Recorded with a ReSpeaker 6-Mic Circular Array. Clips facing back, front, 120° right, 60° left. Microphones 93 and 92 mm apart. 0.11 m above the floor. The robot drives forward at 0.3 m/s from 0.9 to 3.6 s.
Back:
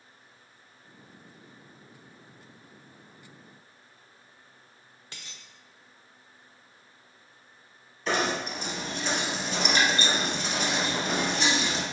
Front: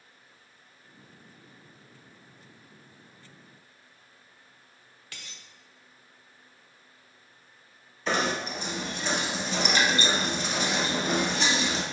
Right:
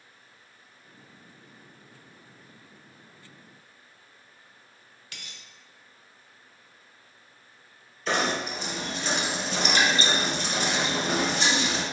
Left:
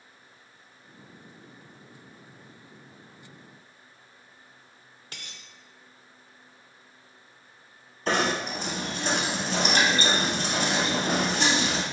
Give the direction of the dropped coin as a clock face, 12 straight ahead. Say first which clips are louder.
Front 1 dB, left 1 dB; 8 o'clock.